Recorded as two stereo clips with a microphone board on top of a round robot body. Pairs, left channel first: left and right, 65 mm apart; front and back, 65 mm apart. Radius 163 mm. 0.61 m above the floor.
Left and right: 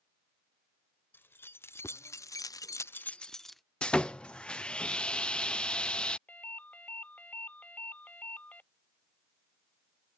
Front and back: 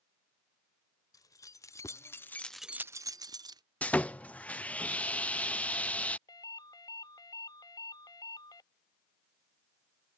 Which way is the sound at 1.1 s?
30° left.